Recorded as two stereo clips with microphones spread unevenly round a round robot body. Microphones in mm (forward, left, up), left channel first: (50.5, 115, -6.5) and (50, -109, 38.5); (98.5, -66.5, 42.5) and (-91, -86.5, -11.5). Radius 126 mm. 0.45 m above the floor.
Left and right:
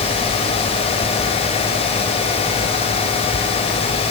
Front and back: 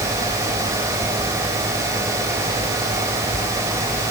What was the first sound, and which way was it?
Only background noise.